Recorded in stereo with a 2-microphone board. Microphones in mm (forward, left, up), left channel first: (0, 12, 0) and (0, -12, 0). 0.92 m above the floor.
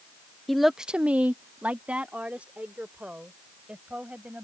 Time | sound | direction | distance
0.5 | a woman speaking | 5° left (ahead or behind) | ?